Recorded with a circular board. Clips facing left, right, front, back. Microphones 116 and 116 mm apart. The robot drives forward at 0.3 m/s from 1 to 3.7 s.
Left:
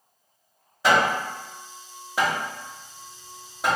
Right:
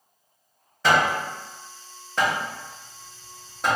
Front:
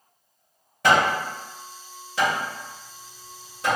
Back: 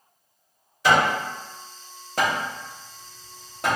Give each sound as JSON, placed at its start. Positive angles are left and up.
{"t": 0.8, "sound": "hammering", "azimuth_deg": 15, "distance_m": 1.9}
{"t": 2.2, "sound": "hammering", "azimuth_deg": 170, "distance_m": 0.6}